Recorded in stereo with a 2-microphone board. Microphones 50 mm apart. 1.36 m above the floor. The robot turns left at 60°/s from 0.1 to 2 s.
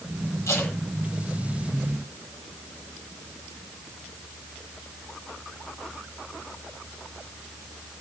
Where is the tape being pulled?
70° left (ahead or behind), 7.5 m; by 0.7 s 50° left (ahead or behind), 7.5 m.